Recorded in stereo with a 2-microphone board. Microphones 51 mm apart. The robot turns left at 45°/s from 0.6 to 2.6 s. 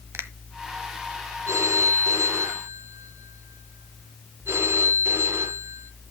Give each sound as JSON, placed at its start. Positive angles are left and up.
{"t": 0.1, "sound": "a finger snap", "side_deg": -60, "distance_m": 1.3}
{"t": 1.5, "sound": "a phone ringing", "azimuth_deg": -80, "distance_m": 3.5}